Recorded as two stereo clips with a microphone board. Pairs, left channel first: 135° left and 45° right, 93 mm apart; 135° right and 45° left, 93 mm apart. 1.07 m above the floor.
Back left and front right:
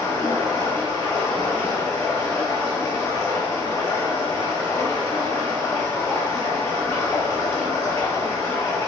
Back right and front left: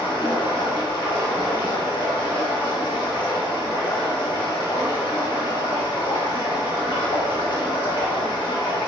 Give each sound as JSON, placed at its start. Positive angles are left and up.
{"t": 0.0, "sound": "running water", "azimuth_deg": -170, "distance_m": 1.0}